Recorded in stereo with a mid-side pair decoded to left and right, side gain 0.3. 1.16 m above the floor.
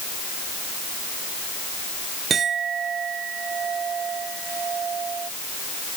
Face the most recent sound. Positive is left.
turn(degrees=-70)